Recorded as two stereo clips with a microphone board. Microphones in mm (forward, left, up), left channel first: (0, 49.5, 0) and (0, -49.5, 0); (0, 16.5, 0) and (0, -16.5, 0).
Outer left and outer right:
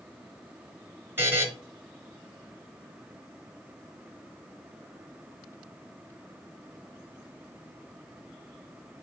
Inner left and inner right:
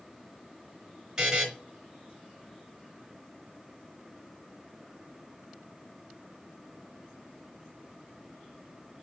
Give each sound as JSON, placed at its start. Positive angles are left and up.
{"t": 1.2, "sound": "a buzzer", "side_deg": -20, "distance_m": 3.0}